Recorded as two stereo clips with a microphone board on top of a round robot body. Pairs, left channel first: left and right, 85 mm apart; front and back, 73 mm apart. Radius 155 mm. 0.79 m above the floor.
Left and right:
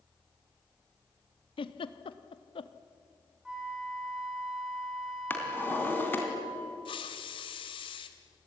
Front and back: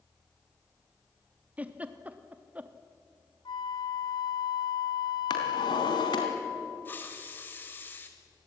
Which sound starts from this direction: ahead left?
A hiss, at 6.8 s.